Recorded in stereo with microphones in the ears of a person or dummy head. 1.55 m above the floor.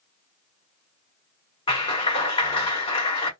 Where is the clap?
25° left (ahead or behind), 1.3 m.